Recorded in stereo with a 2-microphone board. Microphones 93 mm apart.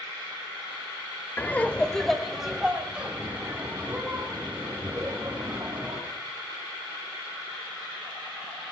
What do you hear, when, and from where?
1.4 s laughter: 20° left (ahead or behind), 0.8 m; by 6.0 s 20° right (ahead or behind), 4 m